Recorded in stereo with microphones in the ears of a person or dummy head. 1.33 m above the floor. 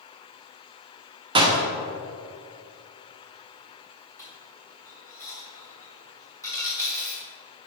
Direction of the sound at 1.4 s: 30° right (ahead or behind).